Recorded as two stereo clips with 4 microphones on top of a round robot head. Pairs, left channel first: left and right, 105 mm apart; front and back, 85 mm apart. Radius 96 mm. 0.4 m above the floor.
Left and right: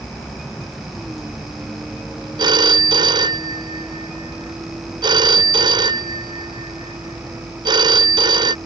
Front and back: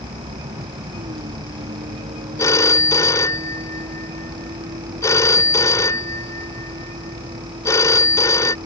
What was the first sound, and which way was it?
A vehicle, straight behind.